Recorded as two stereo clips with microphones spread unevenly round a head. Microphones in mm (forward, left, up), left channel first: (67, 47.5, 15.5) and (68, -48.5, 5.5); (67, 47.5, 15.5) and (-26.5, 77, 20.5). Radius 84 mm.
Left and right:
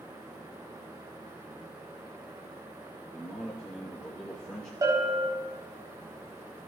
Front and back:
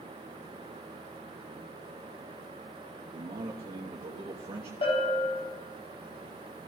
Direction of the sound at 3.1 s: 170° left.